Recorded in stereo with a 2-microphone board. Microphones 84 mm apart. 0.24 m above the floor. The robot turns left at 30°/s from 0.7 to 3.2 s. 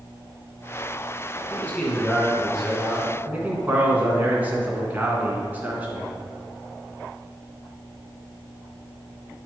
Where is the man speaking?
30° left, 2 m; by 6.1 s 25° right, 2 m.